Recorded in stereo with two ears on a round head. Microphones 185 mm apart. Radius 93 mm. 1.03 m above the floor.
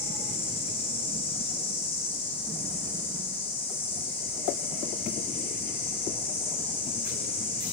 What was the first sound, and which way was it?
An insect, 30° left (ahead or behind).